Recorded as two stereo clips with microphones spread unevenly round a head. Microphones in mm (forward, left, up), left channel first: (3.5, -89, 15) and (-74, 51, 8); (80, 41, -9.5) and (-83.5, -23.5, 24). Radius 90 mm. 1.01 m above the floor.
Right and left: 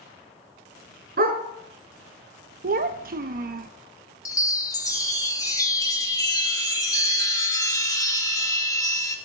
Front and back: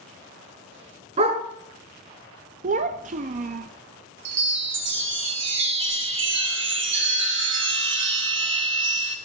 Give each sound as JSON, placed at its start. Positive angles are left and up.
{"t": 1.2, "sound": "a dog barking", "azimuth_deg": 150, "distance_m": 3.5}
{"t": 2.6, "sound": "a child speaking", "azimuth_deg": 155, "distance_m": 0.7}
{"t": 4.2, "sound": "a chime", "azimuth_deg": -130, "distance_m": 2.0}